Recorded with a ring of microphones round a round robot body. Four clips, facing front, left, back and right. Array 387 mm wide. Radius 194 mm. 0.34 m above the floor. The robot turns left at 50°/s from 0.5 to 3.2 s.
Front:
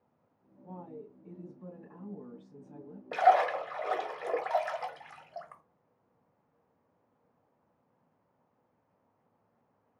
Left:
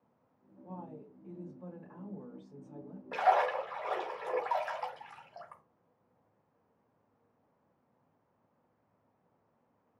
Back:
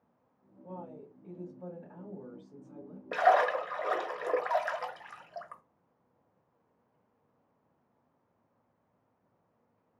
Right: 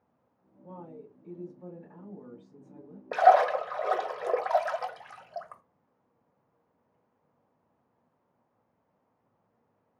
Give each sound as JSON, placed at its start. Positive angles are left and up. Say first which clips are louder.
{"t": 0.6, "sound": "a woman speaking", "louder": "right 1 dB, back 1 dB", "azimuth_deg": -140, "distance_m": 2.0}
{"t": 3.1, "sound": "a splash", "louder": "right 8 dB, front 1 dB", "azimuth_deg": -105, "distance_m": 1.2}